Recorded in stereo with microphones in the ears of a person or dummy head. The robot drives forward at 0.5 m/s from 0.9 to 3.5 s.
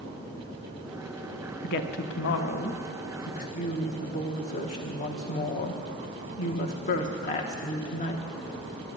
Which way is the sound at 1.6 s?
60° left (ahead or behind).